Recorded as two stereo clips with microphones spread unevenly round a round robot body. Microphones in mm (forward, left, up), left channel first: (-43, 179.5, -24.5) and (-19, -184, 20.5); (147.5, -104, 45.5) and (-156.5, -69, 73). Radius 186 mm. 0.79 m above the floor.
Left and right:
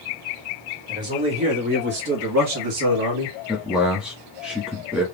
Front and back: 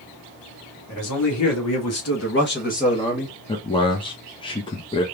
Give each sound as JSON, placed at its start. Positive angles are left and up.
{"t": 0.9, "sound": "a man speaking", "azimuth_deg": -5, "distance_m": 2.0}
{"t": 3.5, "sound": "a man speaking", "azimuth_deg": 15, "distance_m": 0.8}